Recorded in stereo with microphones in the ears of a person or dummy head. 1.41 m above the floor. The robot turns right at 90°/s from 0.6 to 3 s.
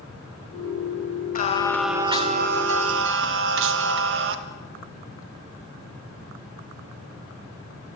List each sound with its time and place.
1.4 s singing: 135° left, 1.6 m; by 4.3 s 75° right, 1.6 m